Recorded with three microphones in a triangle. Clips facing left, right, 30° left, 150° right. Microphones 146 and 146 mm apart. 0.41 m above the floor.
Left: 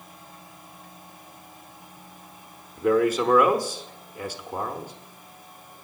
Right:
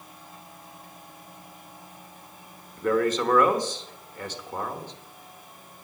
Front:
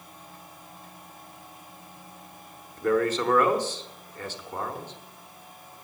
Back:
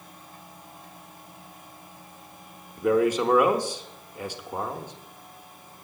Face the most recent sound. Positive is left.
turn(degrees=155)